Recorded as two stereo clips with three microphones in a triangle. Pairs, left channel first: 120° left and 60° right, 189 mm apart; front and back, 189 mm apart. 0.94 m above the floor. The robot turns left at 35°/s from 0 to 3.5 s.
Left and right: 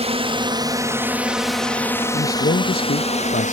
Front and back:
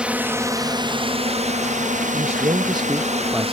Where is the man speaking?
140° left; by 3.5 s 95° left.